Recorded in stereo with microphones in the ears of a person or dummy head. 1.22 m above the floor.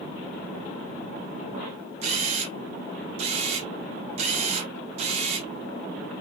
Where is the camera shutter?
30° right (ahead or behind), 0.6 m.